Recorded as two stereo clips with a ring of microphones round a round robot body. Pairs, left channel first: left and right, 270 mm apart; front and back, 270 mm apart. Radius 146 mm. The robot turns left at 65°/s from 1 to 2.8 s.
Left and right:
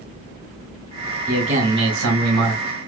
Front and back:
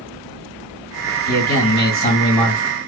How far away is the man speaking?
About 1.8 m.